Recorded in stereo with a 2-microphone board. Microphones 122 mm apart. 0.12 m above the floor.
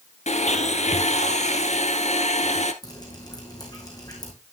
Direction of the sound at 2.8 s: 30° left (ahead or behind).